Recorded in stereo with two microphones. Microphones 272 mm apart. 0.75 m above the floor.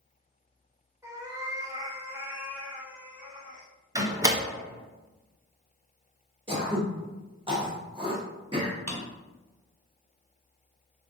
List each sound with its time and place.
1.0 s a cat meowing: 10° right (ahead or behind), 0.7 m; by 3.7 s 5° right (ahead or behind), 1.5 m
4.0 s a door slam: 15° right (ahead or behind), 0.5 m
6.5 s throat clearing: 20° right (ahead or behind), 0.9 m
8.9 s a drawer: 65° right (ahead or behind), 1.1 m